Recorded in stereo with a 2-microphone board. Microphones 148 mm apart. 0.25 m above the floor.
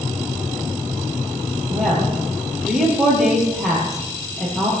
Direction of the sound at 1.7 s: Centre (ahead or behind).